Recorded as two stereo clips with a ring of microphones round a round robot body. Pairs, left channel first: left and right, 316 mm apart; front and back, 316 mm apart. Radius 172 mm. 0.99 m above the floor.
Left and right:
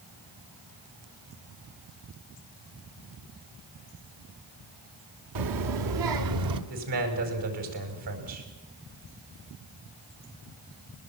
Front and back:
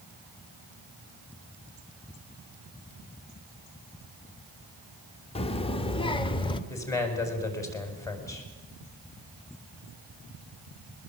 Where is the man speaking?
80° right, 6 m.